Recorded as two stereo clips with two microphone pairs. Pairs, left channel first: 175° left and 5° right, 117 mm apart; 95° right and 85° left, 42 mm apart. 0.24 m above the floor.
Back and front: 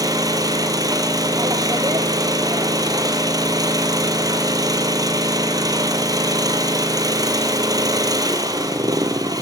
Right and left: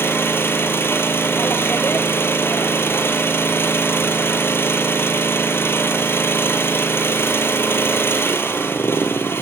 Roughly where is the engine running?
Ahead right.